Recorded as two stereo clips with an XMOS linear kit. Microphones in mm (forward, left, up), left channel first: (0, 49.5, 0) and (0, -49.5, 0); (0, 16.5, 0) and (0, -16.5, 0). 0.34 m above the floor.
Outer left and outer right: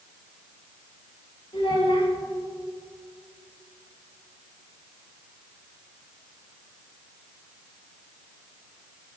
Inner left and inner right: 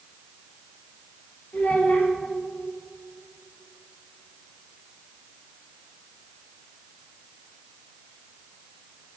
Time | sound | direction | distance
1.5 | a child speaking | 65° left (ahead or behind) | 5 m